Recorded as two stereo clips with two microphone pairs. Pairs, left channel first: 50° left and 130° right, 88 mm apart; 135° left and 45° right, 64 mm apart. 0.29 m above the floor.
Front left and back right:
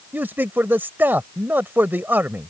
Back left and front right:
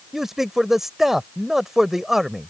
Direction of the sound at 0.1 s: 130° right.